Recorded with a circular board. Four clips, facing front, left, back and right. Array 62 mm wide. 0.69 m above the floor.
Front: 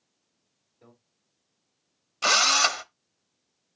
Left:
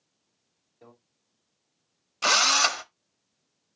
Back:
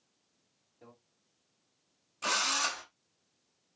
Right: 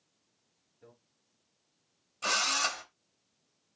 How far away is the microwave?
About 4.5 m.